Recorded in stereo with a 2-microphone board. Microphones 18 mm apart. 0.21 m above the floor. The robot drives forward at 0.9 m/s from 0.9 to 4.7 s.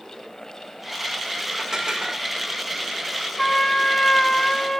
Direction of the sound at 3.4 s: 25° left (ahead or behind).